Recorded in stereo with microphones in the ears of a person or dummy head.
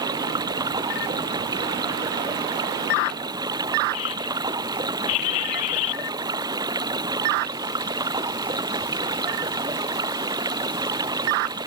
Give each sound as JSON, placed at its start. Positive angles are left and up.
{"t": 0.0, "sound": "running water", "side_deg": -20}